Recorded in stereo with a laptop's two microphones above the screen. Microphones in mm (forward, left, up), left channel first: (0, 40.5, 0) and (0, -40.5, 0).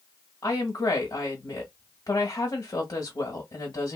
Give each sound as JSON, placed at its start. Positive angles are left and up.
{"t": 0.4, "sound": "a woman speaking", "side_deg": 45, "distance_m": 1.5}